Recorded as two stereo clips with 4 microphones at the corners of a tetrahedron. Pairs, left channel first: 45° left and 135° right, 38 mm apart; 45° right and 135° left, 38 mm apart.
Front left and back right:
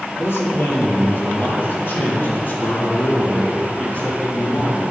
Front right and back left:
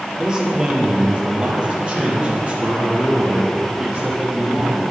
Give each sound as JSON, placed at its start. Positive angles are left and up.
{"t": 0.2, "sound": "a man speaking", "azimuth_deg": 65, "distance_m": 4.5}